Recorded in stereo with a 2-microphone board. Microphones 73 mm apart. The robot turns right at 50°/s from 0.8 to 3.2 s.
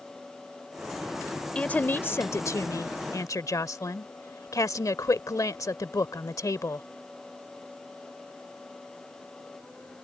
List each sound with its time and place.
1.6 s a woman speaking: 20° left; by 6.8 s 100° left